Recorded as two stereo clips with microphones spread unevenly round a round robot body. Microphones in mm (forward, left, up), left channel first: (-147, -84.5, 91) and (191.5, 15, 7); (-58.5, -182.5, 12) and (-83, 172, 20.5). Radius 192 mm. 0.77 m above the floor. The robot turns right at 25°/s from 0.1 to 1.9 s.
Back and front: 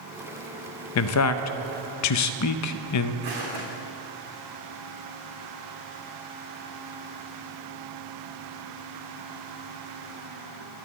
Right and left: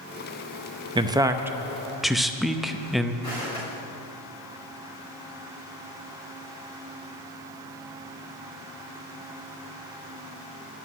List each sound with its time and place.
0.9 s a man speaking: 160° left, 0.6 m; by 3.1 s 175° right, 0.6 m
3.2 s footsteps: 5° right, 4 m